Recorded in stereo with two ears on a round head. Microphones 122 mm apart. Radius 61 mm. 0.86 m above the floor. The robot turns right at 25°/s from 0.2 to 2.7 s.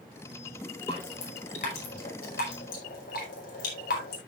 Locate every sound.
0.9 s dripping: 45° left (ahead or behind), 4.5 m; by 4.2 s 80° left, 4.5 m